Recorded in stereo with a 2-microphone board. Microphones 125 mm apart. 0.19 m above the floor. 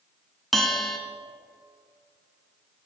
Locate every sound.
0.5 s a bell: centre (ahead or behind), 1.2 m